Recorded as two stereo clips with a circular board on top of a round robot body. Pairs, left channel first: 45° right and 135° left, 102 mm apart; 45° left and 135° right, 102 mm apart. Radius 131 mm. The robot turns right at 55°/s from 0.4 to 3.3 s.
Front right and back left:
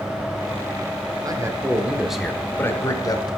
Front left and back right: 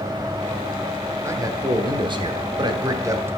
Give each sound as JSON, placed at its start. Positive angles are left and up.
{"t": 1.2, "sound": "a man speaking", "azimuth_deg": 170, "distance_m": 1.4}